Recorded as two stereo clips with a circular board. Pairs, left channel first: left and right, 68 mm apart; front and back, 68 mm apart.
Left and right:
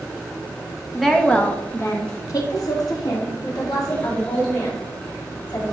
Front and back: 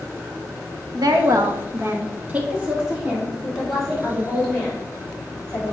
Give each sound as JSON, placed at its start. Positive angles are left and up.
{"t": 0.9, "sound": "a woman speaking", "azimuth_deg": 180, "distance_m": 1.4}